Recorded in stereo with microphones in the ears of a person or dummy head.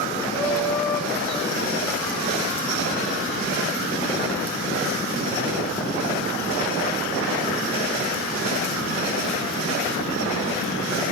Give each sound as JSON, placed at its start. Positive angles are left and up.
{"t": 0.3, "sound": "laughter", "side_deg": 10, "distance_m": 2.5}